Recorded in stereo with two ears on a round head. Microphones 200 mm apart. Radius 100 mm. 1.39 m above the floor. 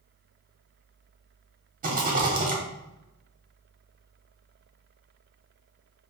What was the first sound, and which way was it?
A rattle, 40° right (ahead or behind).